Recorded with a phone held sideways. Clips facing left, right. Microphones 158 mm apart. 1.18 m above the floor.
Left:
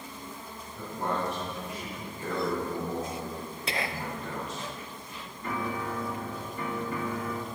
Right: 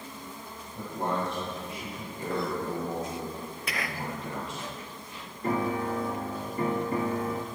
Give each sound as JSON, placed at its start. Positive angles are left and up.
{"t": 0.8, "sound": "a man speaking", "side_deg": -30, "distance_m": 5.5}
{"t": 3.7, "sound": "whispering", "side_deg": 30, "distance_m": 0.5}
{"t": 5.4, "sound": "a piano", "side_deg": -35, "distance_m": 0.8}